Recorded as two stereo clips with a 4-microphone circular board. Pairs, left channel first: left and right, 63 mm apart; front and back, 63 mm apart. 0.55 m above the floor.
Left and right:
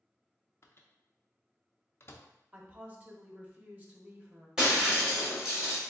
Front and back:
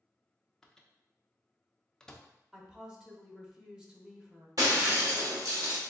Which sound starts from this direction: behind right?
A woman speaking, at 2.5 s.